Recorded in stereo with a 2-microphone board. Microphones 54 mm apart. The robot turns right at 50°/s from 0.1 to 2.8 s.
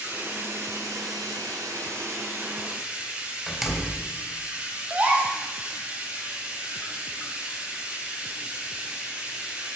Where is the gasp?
25° right (ahead or behind), 3 m.